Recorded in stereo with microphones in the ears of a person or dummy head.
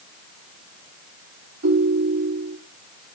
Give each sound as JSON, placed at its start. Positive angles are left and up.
{"t": 1.6, "sound": "a ringtone", "side_deg": -75, "distance_m": 3.0}